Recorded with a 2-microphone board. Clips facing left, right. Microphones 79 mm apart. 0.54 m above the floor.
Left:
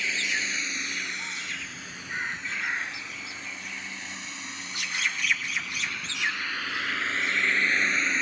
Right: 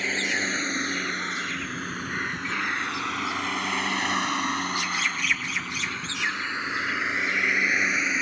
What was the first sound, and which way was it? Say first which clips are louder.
A vehicle: right 3 dB; 40° right (ahead or behind).